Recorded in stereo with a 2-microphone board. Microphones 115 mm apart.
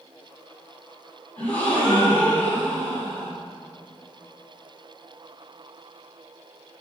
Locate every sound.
1.4 s a gasp: 15° left (ahead or behind), 3.5 m